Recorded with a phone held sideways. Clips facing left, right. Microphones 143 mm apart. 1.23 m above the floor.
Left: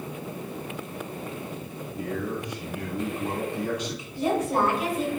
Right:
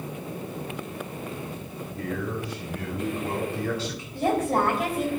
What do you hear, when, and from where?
2.0 s a man speaking: 15° left (ahead or behind), 3 m
4.1 s a woman speaking: 50° right (ahead or behind), 4 m